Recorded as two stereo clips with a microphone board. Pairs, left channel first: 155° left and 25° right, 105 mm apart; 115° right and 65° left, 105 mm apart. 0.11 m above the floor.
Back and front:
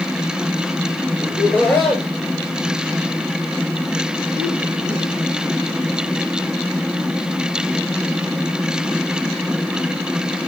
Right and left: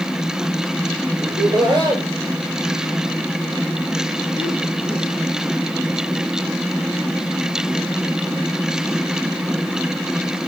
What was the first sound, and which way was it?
Laughter, 90° left.